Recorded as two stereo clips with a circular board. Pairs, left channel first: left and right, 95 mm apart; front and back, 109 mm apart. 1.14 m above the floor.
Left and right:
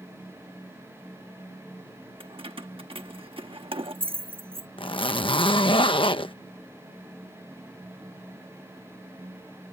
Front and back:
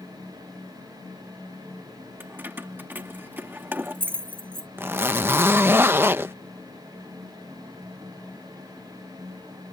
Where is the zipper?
110° left.